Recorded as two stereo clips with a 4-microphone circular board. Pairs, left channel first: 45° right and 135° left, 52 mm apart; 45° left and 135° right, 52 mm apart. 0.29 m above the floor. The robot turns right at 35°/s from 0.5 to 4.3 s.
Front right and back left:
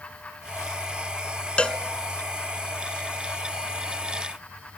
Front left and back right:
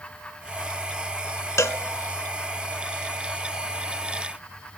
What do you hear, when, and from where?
1.6 s a cowbell: 25° left, 0.7 m; by 1.8 s 30° left, 0.7 m